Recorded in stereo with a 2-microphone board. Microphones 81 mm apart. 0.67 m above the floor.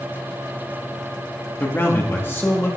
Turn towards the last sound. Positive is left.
turn(degrees=25)  # may be behind; listen again after turning